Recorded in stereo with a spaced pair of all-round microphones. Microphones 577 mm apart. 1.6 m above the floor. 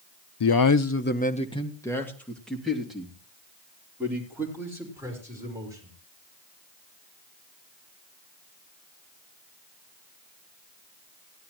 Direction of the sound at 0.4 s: 50° left (ahead or behind).